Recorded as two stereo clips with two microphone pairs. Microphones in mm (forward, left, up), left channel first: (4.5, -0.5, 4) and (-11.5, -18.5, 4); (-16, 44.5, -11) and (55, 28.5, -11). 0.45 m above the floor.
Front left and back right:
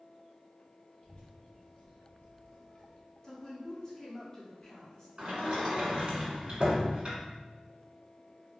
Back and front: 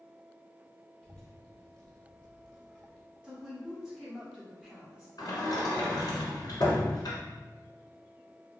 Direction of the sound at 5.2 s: 175° right.